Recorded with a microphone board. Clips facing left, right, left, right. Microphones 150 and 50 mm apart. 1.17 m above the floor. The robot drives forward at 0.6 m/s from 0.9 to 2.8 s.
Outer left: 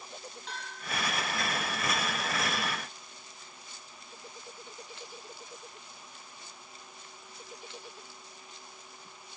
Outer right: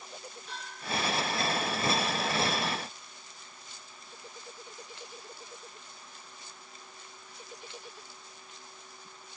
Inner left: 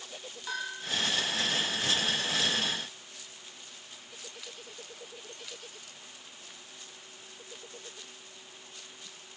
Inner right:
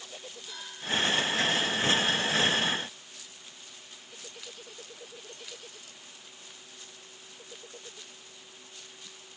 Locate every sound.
0.5 s a bell: 85° left, 4.5 m